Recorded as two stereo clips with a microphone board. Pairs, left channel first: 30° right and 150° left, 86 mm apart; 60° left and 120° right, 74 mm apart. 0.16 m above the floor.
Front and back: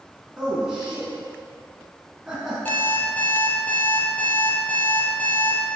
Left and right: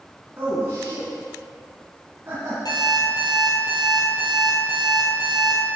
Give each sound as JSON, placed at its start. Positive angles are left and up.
{"t": 0.4, "sound": "a man speaking", "azimuth_deg": -140, "distance_m": 1.7}
{"t": 2.6, "sound": "an alarm clock", "azimuth_deg": 40, "distance_m": 1.9}